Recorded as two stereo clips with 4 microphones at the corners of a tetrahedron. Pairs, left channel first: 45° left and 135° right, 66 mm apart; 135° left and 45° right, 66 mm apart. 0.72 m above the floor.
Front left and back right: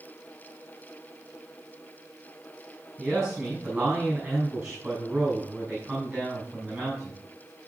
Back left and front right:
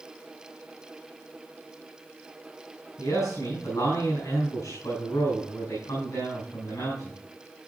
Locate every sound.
3.0 s a man speaking: 145° left, 7 m